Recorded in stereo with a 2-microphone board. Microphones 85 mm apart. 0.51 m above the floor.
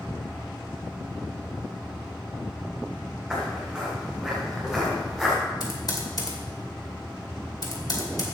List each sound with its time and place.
3.3 s footsteps: 5° right (ahead or behind), 5 m; by 5.4 s centre (ahead or behind), 4 m
5.6 s typing on a keyboard: 50° left (ahead or behind), 2 m